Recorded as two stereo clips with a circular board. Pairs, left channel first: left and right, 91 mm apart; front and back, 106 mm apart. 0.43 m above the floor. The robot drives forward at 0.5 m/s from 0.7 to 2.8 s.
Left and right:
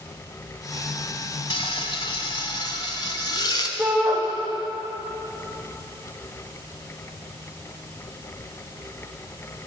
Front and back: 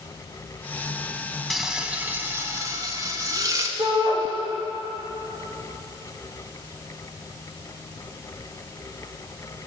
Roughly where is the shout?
Behind.